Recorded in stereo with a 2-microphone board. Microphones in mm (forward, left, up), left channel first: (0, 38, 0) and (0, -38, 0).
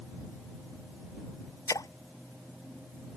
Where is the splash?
55° left (ahead or behind).